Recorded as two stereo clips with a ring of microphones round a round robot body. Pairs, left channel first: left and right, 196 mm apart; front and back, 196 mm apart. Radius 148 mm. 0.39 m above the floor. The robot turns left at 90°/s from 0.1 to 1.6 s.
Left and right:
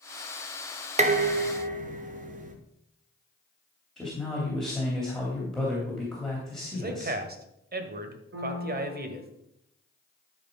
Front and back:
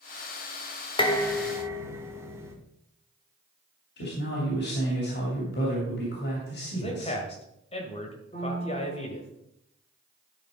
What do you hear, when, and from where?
1.0 s dishes clattering: 55° right, 0.9 m; by 2.5 s 110° right, 0.9 m
4.0 s a man speaking: straight ahead, 3 m
6.7 s a man speaking: 60° right, 1.6 m
8.3 s a piano: 70° right, 2.5 m